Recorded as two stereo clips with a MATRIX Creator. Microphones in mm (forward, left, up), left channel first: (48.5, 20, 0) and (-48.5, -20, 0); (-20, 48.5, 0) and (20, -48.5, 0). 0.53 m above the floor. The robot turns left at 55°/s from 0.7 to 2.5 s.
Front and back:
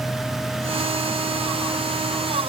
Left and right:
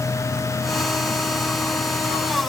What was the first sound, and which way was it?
Only background noise.